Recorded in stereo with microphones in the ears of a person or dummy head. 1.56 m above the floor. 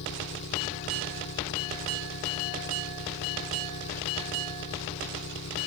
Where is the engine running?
65° left (ahead or behind).